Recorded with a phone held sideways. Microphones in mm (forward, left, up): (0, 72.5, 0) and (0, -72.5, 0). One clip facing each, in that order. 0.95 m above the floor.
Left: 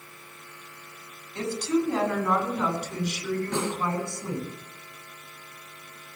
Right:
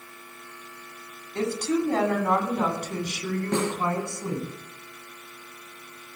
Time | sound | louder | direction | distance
1.4 | a woman speaking | right 1 dB | 55° right (ahead or behind) | 7.5 m
3.5 | a snare drum | right 3 dB | 60° right (ahead or behind) | 6.5 m